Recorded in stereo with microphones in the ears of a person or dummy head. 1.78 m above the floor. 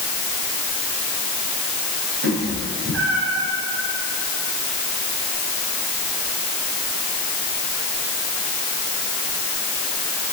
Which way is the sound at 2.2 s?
60° right (ahead or behind).